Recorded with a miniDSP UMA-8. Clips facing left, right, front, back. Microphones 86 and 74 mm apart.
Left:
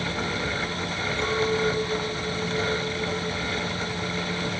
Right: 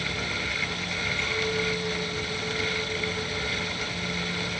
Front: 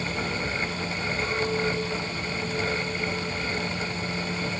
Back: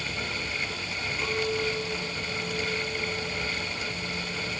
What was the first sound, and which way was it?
A clink, 110° left.